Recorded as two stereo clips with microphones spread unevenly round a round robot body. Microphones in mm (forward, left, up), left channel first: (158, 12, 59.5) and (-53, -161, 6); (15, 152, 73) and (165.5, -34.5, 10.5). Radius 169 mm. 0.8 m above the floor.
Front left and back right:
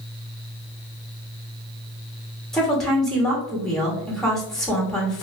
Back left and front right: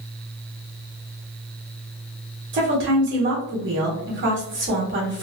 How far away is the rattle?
I don't hear a rattle.